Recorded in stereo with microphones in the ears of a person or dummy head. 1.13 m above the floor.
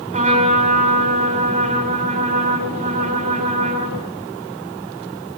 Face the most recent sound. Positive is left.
turn(degrees=-35)  # may be behind; listen again after turning